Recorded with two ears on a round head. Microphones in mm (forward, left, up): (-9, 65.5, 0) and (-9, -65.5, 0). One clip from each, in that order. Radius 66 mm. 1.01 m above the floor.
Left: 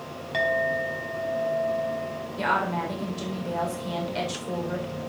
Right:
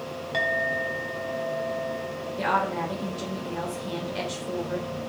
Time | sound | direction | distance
0.3 | a clink | centre (ahead or behind) | 5 m
2.4 | a woman speaking | 20° left (ahead or behind) | 4 m